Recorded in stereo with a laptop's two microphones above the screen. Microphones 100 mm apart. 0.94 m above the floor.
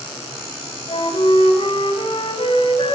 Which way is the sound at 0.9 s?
55° left (ahead or behind).